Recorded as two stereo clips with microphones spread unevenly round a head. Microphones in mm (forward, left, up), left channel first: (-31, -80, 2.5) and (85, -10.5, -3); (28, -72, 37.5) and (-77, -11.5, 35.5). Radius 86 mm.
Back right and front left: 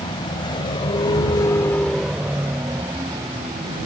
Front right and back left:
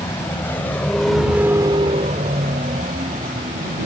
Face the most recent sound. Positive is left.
turn(degrees=100)